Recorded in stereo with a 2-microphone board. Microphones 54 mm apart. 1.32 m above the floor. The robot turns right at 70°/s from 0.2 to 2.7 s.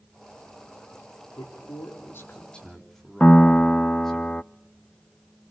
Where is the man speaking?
80° left, 4 m; by 4.2 s 175° left, 4 m.